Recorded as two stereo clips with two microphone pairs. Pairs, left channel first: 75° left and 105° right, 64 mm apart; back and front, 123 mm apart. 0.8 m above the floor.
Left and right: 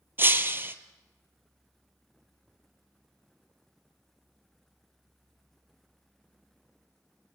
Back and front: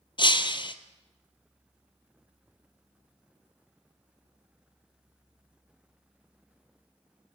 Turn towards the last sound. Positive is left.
turn(degrees=-145)